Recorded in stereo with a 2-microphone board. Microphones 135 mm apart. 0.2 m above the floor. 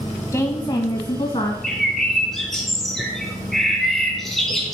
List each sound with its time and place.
0.3 s a woman speaking: 20° left (ahead or behind), 1.1 m; by 1.5 s 50° left (ahead or behind), 1.5 m
1.6 s a bird: centre (ahead or behind), 2 m